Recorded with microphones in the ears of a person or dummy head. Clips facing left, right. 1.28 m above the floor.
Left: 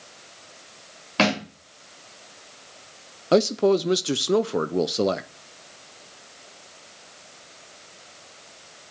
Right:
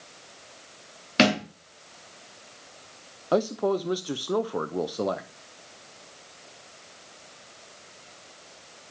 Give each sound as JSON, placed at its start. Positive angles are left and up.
{"t": 1.2, "sound": "a thud", "side_deg": -25, "distance_m": 3.5}
{"t": 3.3, "sound": "a man speaking", "side_deg": 25, "distance_m": 0.5}